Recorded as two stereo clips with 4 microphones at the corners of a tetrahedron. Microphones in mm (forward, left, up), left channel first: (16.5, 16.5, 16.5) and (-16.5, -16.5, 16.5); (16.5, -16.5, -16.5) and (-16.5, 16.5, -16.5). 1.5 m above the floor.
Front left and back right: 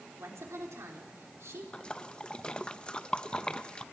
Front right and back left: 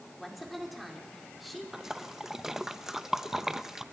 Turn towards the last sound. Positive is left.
turn(degrees=65)